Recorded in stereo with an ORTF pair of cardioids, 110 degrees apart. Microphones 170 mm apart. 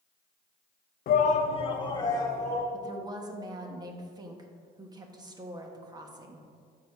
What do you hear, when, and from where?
1.1 s a shout: 60° left, 0.7 m; by 2.6 s 20° left, 2.5 m
2.7 s a woman speaking: 20° right, 1.3 m